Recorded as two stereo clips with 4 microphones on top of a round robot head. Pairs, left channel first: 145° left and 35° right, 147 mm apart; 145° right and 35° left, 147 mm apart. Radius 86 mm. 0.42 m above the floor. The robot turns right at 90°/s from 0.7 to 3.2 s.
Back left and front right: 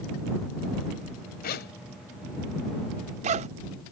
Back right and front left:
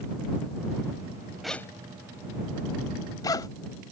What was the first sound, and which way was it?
A zipper, 125° left.